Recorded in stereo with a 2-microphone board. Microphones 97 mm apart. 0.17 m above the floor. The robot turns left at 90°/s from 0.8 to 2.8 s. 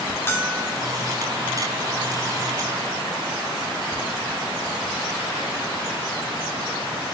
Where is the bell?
25° left (ahead or behind), 5 m; by 0.8 s 20° left (ahead or behind), 5 m.